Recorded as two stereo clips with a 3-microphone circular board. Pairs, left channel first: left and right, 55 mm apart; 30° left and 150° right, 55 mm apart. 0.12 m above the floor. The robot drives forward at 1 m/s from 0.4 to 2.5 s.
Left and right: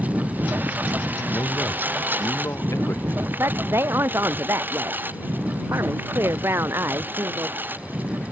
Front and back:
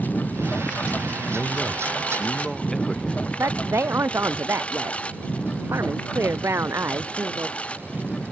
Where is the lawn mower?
30° right; by 8.3 s 40° right.